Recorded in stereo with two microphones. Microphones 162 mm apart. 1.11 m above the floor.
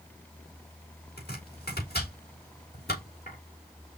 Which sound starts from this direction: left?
Chopping, at 1.2 s.